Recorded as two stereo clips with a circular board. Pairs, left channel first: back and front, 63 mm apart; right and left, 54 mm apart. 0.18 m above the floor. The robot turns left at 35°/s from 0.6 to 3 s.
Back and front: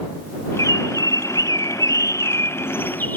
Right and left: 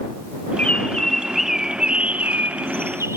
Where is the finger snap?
I don't hear a finger snap.